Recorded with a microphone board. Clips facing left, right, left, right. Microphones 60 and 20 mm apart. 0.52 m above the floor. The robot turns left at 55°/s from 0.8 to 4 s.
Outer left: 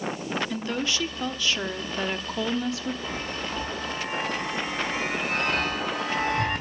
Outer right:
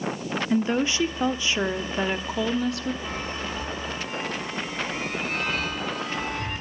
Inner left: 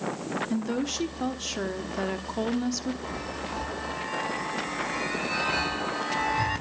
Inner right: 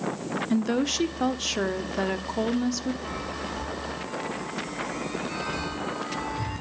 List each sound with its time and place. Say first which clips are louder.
0.5 s a woman speaking: outer right 6 dB, inner right 7 dB; 20° right (ahead or behind), 0.8 m; by 2.9 s 5° left (ahead or behind), 0.8 m
3.0 s a chime: outer right 1 dB, inner right 1 dB; 20° left (ahead or behind), 4 m; by 6.6 s 65° left (ahead or behind), 4 m